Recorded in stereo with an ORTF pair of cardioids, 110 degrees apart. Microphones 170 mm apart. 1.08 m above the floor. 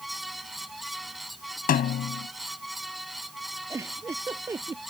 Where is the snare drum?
60° left.